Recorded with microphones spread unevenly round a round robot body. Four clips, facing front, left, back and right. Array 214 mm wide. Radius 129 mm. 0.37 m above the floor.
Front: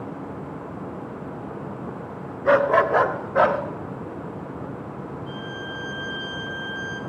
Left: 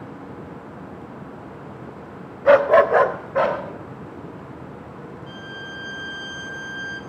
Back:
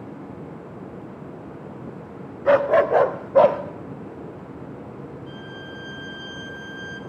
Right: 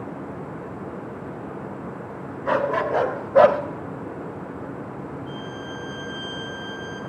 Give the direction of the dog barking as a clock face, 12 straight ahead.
8 o'clock.